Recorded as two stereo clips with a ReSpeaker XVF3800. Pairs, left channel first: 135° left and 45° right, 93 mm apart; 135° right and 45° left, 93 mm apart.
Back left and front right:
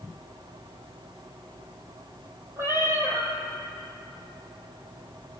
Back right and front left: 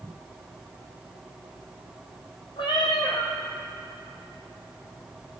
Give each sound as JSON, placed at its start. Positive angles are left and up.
{"t": 2.6, "sound": "a cat meowing", "azimuth_deg": -105, "distance_m": 2.0}